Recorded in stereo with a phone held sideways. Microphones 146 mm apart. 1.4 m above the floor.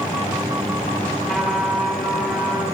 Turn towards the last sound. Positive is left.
turn(degrees=0)  # may be behind; listen again after turning